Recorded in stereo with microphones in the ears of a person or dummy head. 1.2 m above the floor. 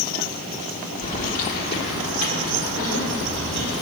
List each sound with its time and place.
1.0 s keys jangling: 40° left (ahead or behind), 1.7 m; by 3.8 s 75° left (ahead or behind), 3 m